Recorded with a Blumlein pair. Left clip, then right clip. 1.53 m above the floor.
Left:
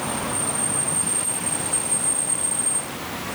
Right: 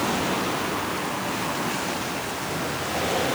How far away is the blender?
I don't hear a blender.